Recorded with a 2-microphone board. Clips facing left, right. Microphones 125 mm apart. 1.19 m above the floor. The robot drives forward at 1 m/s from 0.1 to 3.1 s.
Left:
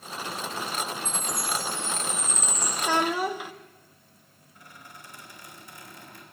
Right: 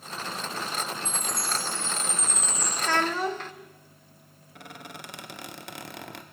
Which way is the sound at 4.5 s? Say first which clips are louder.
Right 6 dB; 75° right (ahead or behind).